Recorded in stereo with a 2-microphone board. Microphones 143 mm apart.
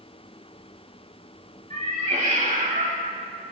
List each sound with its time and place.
1.7 s a cat meowing: 60° right (ahead or behind), 2.5 m; by 3.0 s 70° right (ahead or behind), 2.5 m